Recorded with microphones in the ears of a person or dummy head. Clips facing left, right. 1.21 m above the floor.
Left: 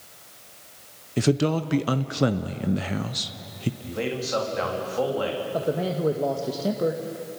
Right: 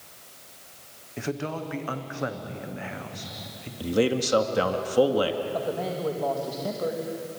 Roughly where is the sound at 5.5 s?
Left.